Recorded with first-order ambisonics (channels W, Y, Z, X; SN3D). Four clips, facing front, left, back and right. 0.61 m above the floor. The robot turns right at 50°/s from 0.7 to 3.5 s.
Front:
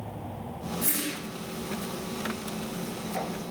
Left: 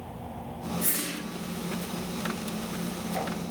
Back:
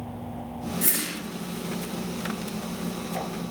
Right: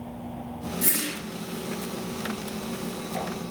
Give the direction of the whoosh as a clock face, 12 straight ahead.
5 o'clock.